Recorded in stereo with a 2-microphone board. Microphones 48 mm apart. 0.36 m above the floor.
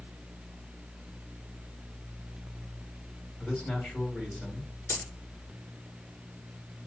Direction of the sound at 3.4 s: 30° left (ahead or behind).